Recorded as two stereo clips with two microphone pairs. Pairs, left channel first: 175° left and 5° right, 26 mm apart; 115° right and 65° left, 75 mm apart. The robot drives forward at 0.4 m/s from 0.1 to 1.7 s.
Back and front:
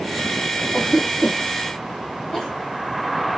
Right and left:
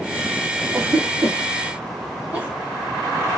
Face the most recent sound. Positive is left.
turn(degrees=130)